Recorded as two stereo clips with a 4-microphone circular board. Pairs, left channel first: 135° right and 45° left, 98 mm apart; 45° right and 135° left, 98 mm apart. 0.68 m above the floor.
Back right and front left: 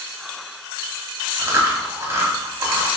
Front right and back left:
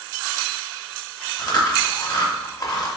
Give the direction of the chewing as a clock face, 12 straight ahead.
12 o'clock.